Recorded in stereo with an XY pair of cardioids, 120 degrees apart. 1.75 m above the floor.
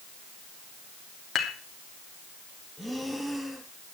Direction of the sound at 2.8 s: Straight ahead.